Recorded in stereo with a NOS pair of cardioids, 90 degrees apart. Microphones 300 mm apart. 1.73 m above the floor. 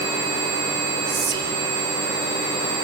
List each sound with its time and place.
1.1 s whispering: 65° right, 3.5 m